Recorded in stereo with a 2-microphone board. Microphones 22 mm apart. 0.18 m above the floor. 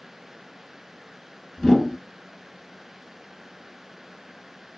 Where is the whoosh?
50° left (ahead or behind), 1.2 m.